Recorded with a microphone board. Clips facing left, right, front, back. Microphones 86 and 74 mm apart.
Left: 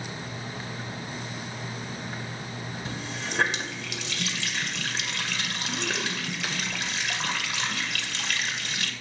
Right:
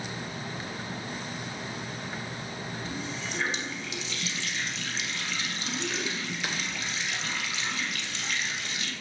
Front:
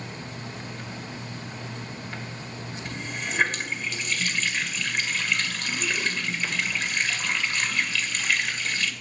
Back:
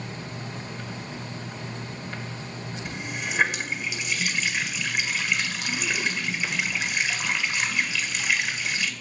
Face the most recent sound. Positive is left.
turn(degrees=95)